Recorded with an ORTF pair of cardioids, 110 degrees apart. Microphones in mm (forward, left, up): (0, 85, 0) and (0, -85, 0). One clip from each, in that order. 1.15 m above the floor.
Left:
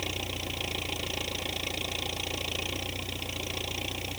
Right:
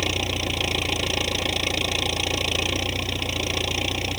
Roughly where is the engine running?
Ahead right.